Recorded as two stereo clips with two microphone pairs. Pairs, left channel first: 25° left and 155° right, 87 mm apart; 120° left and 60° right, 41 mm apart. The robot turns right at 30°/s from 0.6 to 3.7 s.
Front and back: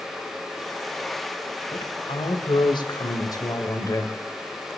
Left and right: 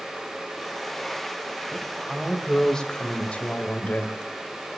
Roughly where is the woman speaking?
Ahead.